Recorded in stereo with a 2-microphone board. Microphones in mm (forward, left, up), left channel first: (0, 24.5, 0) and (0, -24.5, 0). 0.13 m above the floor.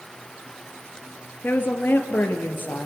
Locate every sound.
1.4 s a woman speaking: 45° left (ahead or behind), 2 m